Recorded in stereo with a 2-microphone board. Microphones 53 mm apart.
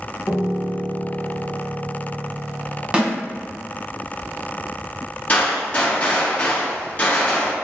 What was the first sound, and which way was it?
A piano, 35° left (ahead or behind).